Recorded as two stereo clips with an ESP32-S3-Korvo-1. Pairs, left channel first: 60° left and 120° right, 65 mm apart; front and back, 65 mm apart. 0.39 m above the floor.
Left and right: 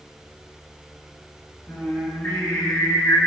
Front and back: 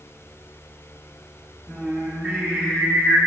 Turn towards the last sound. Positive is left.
turn(degrees=105)